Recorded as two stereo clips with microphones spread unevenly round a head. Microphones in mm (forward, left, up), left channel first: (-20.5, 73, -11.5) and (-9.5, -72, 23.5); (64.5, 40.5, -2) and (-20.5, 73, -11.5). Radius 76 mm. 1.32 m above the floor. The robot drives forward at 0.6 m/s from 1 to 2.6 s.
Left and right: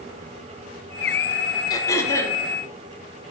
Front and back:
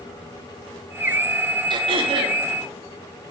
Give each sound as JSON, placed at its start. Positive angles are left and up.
{"t": 1.7, "sound": "throat clearing", "azimuth_deg": 165, "distance_m": 0.5}